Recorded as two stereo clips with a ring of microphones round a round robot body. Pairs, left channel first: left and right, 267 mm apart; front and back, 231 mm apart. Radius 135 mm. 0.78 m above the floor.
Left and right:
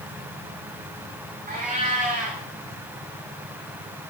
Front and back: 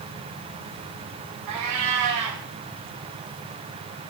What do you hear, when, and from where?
1.5 s a cat meowing: 155° right, 6 m